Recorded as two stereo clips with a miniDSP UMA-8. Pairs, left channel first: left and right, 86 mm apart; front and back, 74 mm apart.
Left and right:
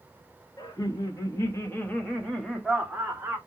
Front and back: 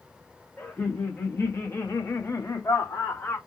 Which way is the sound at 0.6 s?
65° left.